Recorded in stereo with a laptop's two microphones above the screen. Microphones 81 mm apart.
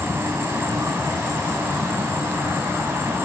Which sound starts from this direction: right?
An insect, at 0.0 s.